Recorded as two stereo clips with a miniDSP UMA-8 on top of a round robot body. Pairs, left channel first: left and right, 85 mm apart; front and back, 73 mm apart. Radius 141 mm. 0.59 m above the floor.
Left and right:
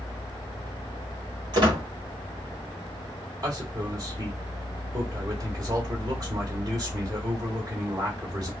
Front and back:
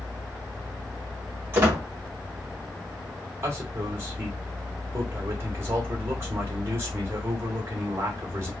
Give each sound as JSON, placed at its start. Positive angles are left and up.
{"t": 1.5, "sound": "a squeak", "azimuth_deg": -120, "distance_m": 1.9}
{"t": 3.4, "sound": "a man speaking", "azimuth_deg": -130, "distance_m": 2.0}